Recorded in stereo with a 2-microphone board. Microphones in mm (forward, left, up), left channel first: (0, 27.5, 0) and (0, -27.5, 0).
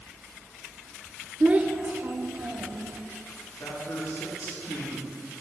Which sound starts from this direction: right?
A child speaking, at 1.4 s.